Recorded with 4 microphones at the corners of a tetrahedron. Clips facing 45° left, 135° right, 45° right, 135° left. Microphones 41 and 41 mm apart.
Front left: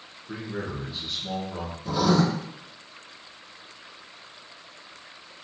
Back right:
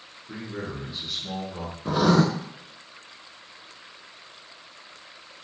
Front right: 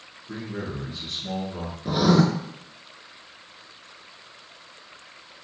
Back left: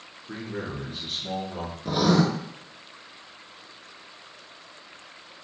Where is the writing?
125° right, 0.6 m.